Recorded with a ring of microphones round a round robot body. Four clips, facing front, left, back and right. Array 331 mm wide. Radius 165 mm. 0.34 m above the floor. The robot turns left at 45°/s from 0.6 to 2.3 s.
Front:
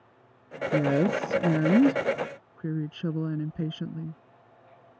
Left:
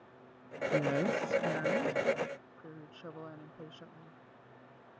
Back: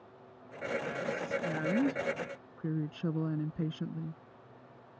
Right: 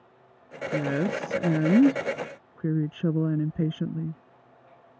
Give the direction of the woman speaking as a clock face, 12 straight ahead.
12 o'clock.